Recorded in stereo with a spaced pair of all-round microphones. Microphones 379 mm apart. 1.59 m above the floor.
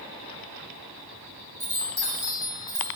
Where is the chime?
60° right (ahead or behind), 3 m.